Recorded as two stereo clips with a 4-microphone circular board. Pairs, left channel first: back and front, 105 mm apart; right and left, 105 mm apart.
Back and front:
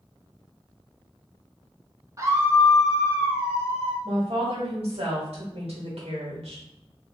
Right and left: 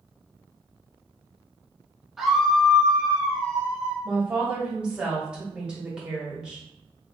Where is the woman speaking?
10° left, 1.6 m.